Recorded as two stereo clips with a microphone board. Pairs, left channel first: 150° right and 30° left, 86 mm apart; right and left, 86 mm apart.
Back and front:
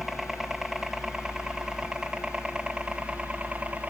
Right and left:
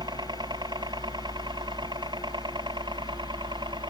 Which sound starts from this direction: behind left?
A helicopter, at 0.0 s.